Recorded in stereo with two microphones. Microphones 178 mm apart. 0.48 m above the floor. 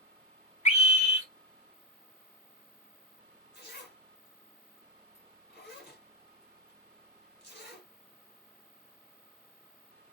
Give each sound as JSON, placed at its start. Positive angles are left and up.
{"t": 0.7, "sound": "a scream", "side_deg": 40, "distance_m": 1.9}
{"t": 3.5, "sound": "a zipper", "side_deg": 70, "distance_m": 2.5}